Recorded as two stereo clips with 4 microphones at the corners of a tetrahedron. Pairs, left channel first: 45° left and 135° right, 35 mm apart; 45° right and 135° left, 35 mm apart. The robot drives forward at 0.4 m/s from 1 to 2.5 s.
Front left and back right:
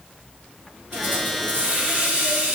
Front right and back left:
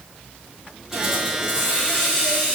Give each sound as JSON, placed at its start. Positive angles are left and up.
{"t": 0.9, "sound": "a hiss", "azimuth_deg": -145, "distance_m": 1.6}